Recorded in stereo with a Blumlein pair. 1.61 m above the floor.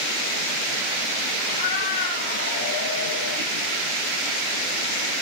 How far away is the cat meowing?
About 6 m.